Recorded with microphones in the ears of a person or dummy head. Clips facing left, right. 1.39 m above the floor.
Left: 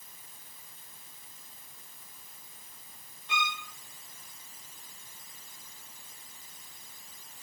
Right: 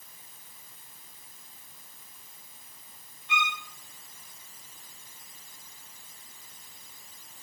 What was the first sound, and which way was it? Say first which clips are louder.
A violin: right 2 dB; 40° left (ahead or behind).